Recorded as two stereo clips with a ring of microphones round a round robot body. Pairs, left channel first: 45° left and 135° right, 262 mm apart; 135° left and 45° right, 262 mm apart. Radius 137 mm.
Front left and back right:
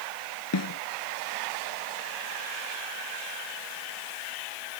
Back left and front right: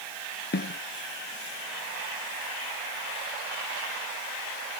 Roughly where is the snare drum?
Left.